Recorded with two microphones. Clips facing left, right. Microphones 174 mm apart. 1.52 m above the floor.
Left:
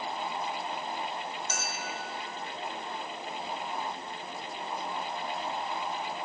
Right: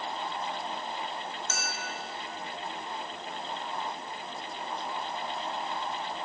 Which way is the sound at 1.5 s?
10° left (ahead or behind).